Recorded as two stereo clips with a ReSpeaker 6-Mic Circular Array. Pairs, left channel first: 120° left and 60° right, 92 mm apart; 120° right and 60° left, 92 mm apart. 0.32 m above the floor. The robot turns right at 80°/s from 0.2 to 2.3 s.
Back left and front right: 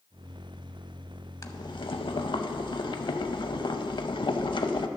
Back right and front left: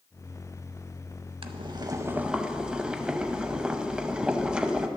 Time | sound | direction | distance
1.4 | boiling | 70° left | 0.5 m